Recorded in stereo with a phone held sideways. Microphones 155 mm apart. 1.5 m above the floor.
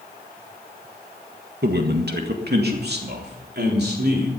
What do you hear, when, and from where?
1.6 s a man speaking: 85° right, 1.5 m; by 4.3 s 80° right, 4 m